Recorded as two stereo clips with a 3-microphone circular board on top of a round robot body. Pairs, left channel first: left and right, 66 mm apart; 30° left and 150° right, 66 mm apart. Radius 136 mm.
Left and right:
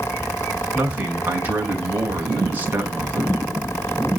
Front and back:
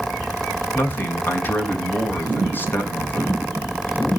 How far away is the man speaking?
About 4 m.